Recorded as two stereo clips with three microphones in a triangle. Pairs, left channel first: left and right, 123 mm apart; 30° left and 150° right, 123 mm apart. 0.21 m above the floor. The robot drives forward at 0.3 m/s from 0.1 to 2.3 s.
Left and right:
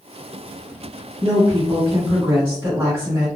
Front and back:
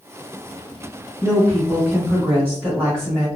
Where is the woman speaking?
70° right, 1.2 m; by 3.3 s 115° right, 1.2 m.